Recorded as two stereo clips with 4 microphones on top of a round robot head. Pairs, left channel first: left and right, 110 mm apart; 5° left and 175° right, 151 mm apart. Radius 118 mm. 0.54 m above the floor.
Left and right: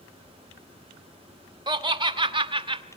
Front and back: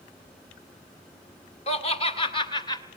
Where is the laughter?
45° right, 2.5 m; by 2.8 s 60° right, 1.7 m.